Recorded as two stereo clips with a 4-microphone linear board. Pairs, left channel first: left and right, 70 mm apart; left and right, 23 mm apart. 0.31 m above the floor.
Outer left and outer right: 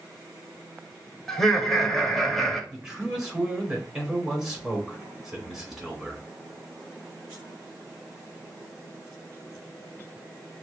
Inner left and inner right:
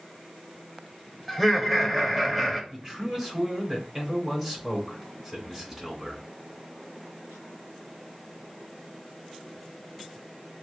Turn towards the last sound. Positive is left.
turn(degrees=-10)  # may be behind; listen again after turning